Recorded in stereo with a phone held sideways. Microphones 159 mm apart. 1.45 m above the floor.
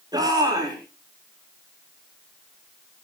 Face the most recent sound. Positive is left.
turn(degrees=-25)  # may be behind; listen again after turning